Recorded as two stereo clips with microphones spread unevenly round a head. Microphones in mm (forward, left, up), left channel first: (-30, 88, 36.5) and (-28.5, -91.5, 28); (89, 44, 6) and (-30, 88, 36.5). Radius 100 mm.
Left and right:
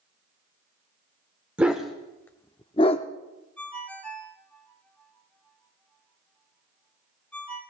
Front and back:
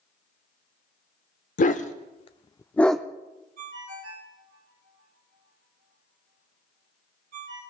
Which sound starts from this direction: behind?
A ringtone, at 3.6 s.